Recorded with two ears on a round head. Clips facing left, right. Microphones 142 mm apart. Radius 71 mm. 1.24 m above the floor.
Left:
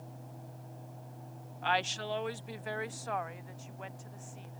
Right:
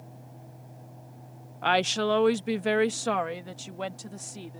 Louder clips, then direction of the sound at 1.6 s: Right 8 dB; 60° right (ahead or behind).